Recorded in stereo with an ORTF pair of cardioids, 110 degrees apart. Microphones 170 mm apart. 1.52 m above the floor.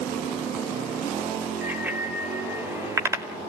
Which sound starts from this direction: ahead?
A bicycle bell, at 1.6 s.